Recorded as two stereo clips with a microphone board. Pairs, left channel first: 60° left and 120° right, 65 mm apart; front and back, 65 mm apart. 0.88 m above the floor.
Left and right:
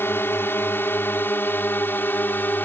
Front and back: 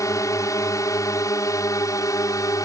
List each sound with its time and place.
0.0 s a drone: 15° left; by 2.7 s 5° left